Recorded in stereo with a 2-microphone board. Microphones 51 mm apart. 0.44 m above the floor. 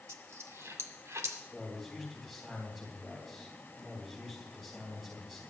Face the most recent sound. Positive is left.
turn(degrees=0)  # may be behind; listen again after turning